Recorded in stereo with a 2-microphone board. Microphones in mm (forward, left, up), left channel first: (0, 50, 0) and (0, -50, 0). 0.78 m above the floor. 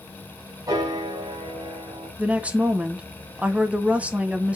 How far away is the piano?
About 4 m.